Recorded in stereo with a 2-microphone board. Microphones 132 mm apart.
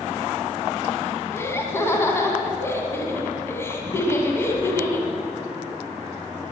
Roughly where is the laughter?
Centre.